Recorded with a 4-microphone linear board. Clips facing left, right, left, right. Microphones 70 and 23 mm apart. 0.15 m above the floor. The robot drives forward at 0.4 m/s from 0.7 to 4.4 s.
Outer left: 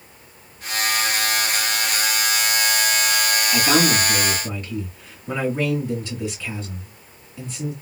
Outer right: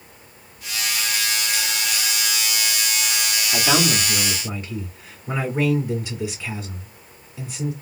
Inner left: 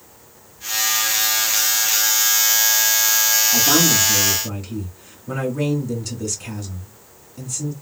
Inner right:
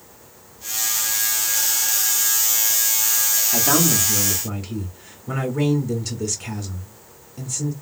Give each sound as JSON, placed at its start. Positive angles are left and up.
{"t": 3.5, "sound": "a man speaking", "side_deg": -15, "distance_m": 1.6}